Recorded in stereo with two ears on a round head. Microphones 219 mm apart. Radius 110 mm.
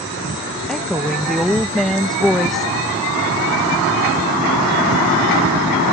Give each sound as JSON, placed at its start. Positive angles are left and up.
{"t": 0.7, "sound": "a woman speaking", "side_deg": 0}